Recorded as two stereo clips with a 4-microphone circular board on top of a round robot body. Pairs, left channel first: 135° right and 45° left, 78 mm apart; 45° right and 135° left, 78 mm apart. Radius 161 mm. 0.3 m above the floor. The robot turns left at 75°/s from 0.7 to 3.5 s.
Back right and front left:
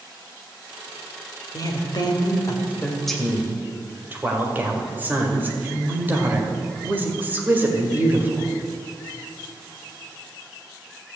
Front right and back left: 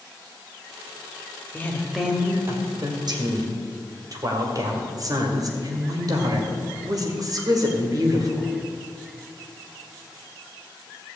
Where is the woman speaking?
105° right, 2 m; by 8.5 s 110° left, 2 m.